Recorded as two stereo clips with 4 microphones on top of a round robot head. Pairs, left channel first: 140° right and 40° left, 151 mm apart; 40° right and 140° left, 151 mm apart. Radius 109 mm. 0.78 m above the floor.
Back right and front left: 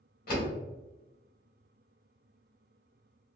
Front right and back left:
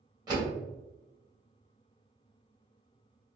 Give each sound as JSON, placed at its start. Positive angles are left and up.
{"t": 0.3, "sound": "a door slam", "azimuth_deg": -160, "distance_m": 1.8}